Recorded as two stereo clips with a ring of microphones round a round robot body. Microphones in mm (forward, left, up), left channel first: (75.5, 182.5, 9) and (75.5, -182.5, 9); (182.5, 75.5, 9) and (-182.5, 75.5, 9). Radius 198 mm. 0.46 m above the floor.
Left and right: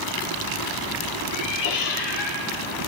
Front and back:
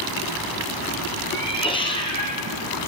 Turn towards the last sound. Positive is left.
turn(degrees=75)